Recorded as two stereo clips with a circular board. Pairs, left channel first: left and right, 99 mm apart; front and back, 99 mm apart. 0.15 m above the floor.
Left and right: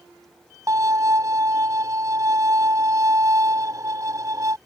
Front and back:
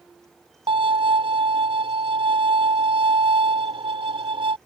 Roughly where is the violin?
Behind right.